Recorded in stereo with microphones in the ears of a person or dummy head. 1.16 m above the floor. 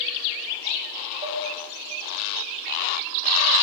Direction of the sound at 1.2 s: 35° right (ahead or behind).